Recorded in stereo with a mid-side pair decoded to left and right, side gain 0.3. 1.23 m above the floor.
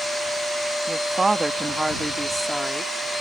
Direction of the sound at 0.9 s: 55° right.